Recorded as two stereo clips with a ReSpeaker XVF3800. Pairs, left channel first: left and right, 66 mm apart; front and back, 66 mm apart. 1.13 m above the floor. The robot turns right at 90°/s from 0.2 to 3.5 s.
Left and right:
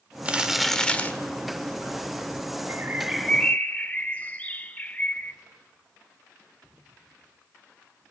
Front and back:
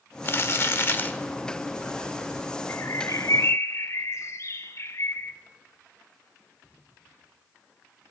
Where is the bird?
45° right, 0.8 m; by 5.3 s 25° left, 0.8 m.